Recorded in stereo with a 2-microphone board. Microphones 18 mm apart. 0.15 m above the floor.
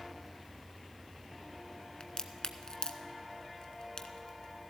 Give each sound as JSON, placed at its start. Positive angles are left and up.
{"t": 2.0, "sound": "a crack", "side_deg": 45, "distance_m": 0.8}